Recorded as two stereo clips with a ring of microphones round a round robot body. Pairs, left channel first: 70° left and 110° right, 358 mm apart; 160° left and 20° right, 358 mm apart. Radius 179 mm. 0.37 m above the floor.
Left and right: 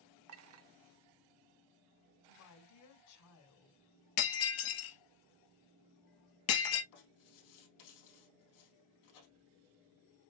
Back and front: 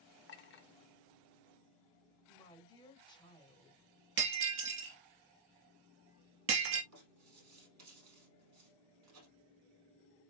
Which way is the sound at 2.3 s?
85° left.